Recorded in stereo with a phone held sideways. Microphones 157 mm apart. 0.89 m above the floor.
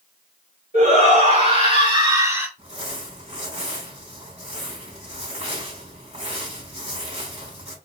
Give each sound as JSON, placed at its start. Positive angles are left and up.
{"t": 0.7, "sound": "a shout", "side_deg": -55, "distance_m": 3.0}
{"t": 2.6, "sound": "crumpling", "side_deg": -45, "distance_m": 3.0}